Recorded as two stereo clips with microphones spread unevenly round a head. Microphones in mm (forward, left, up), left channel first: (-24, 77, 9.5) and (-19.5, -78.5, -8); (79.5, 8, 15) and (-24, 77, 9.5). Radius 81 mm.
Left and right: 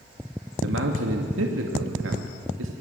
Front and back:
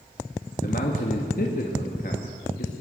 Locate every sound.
0.6 s a man speaking: 80° right, 2 m